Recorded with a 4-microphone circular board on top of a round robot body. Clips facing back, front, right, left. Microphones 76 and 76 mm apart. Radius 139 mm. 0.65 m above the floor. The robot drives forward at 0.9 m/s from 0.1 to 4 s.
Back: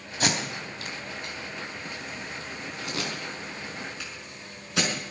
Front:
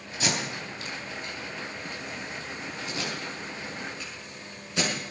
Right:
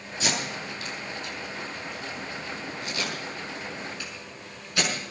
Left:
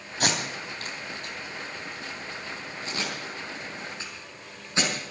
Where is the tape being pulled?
130° left, 3.5 m; by 4.9 s 155° left, 6.5 m.